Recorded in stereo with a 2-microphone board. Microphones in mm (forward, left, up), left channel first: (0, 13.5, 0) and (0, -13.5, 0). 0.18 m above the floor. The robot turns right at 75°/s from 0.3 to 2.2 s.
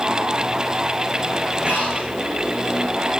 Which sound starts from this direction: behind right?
Breathing, at 1.6 s.